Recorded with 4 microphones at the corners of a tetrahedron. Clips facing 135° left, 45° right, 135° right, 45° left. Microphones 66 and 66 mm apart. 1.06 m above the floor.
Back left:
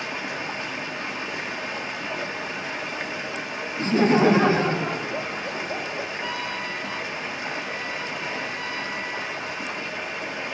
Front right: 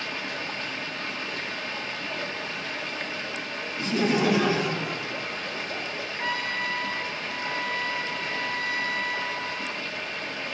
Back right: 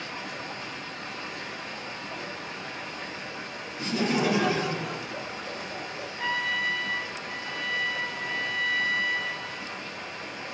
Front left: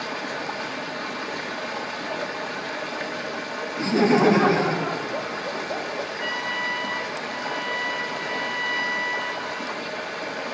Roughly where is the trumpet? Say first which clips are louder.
Front right 1 dB, back right 3 dB; ahead right.